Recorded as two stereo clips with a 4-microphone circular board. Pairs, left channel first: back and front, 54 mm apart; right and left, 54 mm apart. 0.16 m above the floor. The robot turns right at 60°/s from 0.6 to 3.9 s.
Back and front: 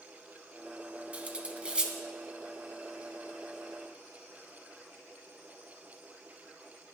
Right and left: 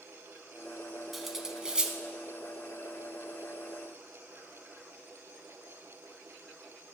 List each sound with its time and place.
1.1 s cutlery clinking: straight ahead, 0.7 m; by 1.9 s 50° left, 0.7 m